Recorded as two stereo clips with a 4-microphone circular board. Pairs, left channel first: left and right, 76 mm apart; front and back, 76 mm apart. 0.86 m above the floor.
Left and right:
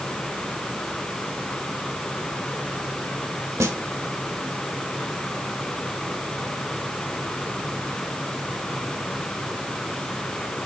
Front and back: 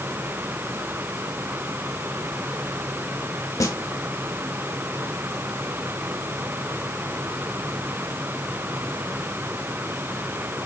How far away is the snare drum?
About 2.0 m.